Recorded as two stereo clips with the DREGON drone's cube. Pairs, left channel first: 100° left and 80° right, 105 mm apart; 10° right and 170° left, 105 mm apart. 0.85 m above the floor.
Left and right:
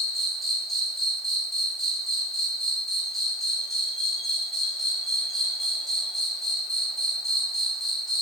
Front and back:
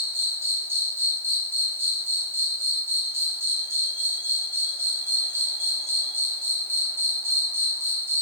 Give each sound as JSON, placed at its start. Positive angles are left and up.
{"t": 0.0, "sound": "an insect", "azimuth_deg": -175, "distance_m": 1.4}